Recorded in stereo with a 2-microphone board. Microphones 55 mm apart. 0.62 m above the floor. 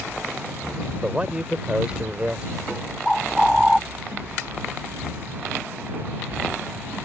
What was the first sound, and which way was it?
A man speaking, 25° right (ahead or behind).